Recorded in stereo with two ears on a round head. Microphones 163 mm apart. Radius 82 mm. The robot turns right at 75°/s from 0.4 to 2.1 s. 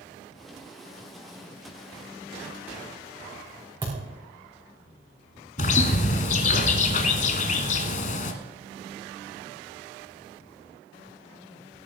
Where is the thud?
20° right (ahead or behind), 5 m.